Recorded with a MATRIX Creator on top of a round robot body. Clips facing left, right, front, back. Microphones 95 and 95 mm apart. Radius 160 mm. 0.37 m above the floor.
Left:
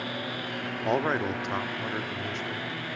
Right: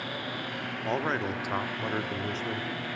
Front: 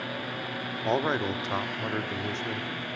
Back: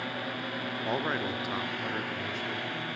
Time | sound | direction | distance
0.8 | a man speaking | 40° left | 1.2 m